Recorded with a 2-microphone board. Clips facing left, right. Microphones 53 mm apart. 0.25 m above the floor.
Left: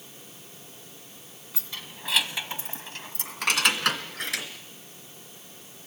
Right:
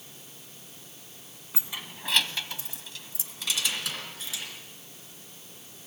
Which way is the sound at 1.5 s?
20° right (ahead or behind).